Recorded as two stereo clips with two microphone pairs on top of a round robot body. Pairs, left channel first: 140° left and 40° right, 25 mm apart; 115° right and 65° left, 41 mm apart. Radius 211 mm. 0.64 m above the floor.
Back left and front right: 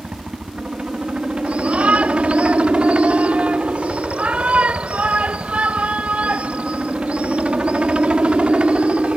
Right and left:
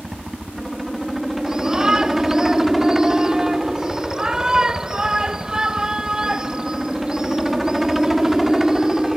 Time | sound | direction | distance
0.0 | a helicopter | 20° right | ?
1.5 | a shout | 5° right | ?